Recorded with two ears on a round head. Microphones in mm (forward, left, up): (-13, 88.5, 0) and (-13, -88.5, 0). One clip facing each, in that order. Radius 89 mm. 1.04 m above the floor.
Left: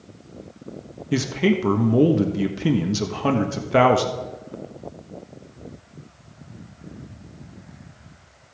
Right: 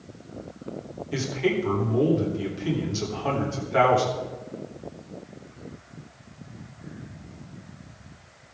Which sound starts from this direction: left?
A man speaking, at 1.1 s.